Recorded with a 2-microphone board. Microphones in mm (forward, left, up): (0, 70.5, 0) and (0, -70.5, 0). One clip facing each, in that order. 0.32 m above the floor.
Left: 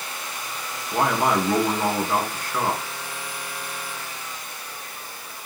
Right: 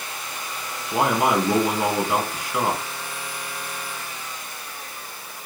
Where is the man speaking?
10° right (ahead or behind), 3.5 m.